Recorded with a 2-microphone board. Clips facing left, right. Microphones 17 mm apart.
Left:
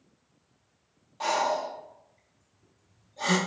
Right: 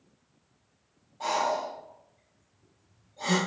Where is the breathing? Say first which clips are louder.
Left 1 dB; 70° left (ahead or behind), 0.8 m.